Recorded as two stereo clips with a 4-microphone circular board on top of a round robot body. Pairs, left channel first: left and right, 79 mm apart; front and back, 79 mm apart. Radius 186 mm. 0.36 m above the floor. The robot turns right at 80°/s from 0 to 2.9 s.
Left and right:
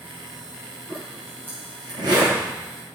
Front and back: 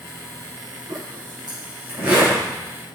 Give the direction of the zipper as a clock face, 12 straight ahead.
7 o'clock.